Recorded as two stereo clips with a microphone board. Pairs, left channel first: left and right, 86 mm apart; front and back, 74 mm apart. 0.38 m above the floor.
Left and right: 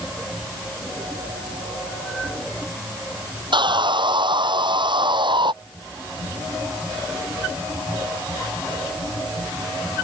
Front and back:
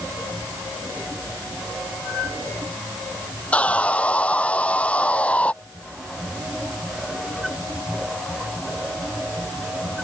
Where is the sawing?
70° right.